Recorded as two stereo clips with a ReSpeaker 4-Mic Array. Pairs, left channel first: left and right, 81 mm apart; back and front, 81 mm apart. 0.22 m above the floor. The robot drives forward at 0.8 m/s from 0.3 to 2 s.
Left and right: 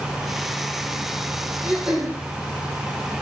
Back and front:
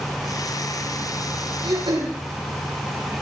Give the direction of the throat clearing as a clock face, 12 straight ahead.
12 o'clock.